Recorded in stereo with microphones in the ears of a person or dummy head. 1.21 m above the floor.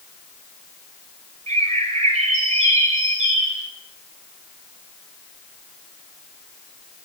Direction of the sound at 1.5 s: 45° right (ahead or behind).